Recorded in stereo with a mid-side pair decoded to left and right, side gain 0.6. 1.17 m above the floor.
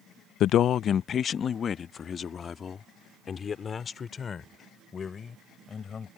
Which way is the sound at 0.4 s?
60° left.